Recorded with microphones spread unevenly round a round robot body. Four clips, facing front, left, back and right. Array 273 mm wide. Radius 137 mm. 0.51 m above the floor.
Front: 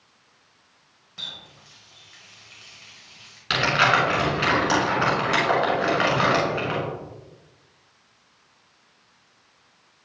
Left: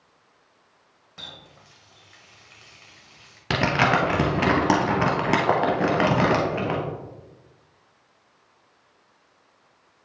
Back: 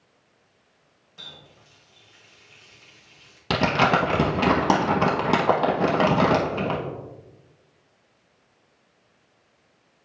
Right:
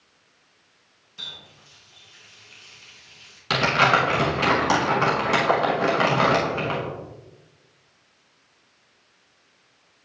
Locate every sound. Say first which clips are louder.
1.2 s a running tap: left 1 dB, front 3 dB; 60° left, 1.5 m
3.5 s crumpling: right 1 dB, even; 145° left, 0.7 m